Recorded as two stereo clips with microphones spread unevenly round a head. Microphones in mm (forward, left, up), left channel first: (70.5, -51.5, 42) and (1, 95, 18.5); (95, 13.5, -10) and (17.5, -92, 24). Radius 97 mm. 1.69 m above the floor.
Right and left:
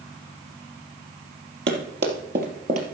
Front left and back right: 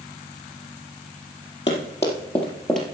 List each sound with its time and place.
1.7 s running footsteps: 125° left, 2.5 m; by 2.8 s 165° left, 2 m